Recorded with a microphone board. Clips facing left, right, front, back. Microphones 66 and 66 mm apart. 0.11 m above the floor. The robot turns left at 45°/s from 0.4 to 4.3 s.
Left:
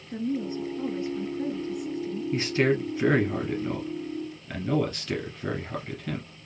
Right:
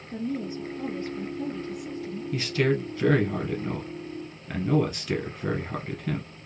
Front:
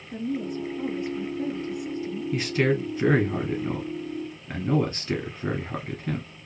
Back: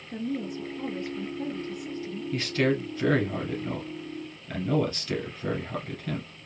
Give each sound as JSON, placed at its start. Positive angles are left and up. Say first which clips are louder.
{"t": 0.1, "sound": "a woman speaking", "louder": "left 2 dB, front 2 dB", "azimuth_deg": 95, "distance_m": 1.6}
{"t": 2.3, "sound": "a man speaking", "louder": "left 1 dB, front 2 dB", "azimuth_deg": 70, "distance_m": 1.3}